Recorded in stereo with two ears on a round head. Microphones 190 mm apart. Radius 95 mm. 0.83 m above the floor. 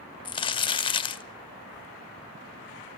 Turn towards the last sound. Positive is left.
turn(degrees=25)  # may be behind; listen again after turning